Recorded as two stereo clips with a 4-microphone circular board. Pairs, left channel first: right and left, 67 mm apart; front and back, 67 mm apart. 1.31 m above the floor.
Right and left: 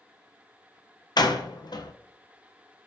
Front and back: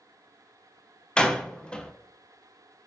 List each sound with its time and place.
1.2 s a door slam: 75° right, 0.7 m